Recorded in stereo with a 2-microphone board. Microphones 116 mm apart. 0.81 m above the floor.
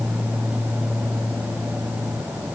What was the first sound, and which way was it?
Only background noise.